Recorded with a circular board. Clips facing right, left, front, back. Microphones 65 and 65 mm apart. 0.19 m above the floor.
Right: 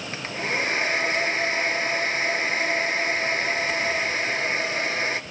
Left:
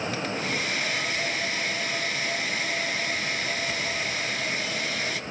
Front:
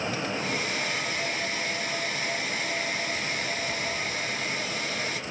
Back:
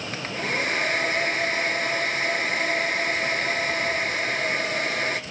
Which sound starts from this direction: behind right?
A hair dryer, at 0.1 s.